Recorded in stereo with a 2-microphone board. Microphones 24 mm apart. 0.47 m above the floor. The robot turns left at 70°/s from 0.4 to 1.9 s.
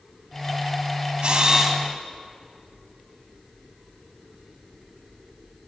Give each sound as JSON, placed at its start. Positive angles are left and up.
{"t": 1.2, "sound": "a camera shutter", "azimuth_deg": -130, "distance_m": 0.6}